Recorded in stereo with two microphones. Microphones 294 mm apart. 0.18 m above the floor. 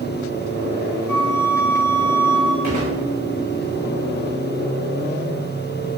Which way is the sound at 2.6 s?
65° right (ahead or behind).